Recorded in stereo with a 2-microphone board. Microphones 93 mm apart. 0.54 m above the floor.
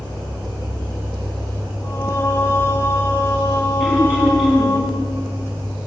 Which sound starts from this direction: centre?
Throat clearing, at 3.8 s.